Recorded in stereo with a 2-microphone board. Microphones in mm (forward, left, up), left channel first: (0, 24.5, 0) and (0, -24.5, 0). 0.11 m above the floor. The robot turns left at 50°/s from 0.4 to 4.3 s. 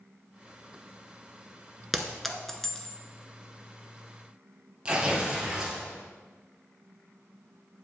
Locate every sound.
1.9 s a clink: 5° right (ahead or behind), 0.7 m; by 3.0 s 15° left (ahead or behind), 0.7 m
4.8 s tearing paper: 20° right (ahead or behind), 2.0 m